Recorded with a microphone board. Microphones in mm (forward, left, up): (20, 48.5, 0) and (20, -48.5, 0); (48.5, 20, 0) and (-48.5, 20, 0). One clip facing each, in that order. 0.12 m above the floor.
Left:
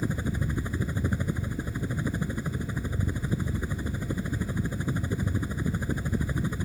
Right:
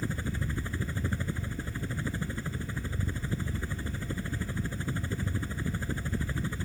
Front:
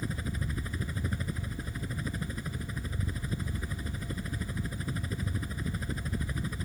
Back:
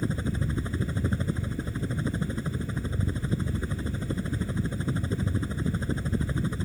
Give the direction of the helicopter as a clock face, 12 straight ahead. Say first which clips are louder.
Left 4 dB, back 7 dB; 7 o'clock.